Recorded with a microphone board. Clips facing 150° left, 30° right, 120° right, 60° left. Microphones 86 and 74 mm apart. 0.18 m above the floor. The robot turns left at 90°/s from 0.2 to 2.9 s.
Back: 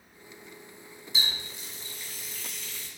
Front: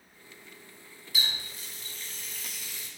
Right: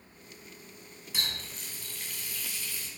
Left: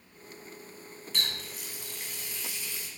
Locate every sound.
1.1 s a running tap: 170° left, 0.7 m; by 2.9 s 15° left, 0.7 m